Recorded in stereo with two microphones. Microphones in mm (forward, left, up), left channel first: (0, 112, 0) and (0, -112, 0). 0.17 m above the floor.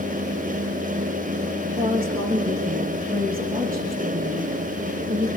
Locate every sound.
1.8 s a woman speaking: 40° right (ahead or behind), 10 m